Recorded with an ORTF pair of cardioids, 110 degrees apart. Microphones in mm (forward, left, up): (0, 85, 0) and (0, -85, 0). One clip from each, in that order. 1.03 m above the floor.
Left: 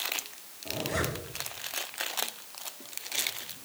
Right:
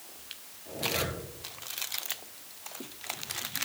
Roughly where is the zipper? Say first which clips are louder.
Even; ahead left.